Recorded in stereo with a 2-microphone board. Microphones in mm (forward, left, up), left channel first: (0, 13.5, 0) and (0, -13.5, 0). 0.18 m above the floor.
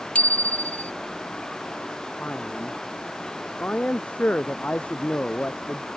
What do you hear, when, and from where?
0.1 s a bicycle bell: 60° left (ahead or behind)
2.2 s a man speaking: 65° left (ahead or behind)